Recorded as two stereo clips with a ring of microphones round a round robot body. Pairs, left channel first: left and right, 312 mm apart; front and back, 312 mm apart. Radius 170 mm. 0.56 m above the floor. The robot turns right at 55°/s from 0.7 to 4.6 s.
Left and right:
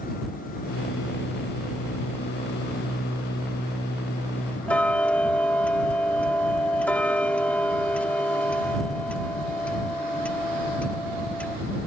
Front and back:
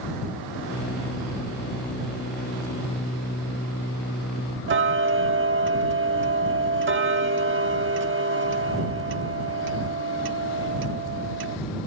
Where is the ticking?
175° left.